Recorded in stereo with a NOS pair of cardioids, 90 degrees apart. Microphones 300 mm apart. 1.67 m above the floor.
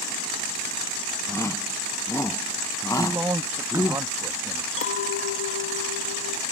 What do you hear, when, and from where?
1.3 s a shout: 10° left
3.0 s a man speaking: 10° right
4.8 s a clink: 45° left